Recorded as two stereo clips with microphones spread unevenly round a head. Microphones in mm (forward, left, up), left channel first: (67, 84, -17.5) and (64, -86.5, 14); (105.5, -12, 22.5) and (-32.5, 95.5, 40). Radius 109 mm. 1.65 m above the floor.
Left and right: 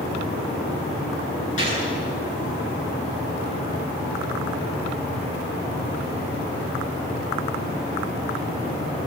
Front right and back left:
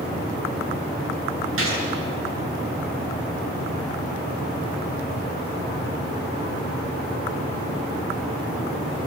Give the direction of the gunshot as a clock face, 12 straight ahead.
7 o'clock.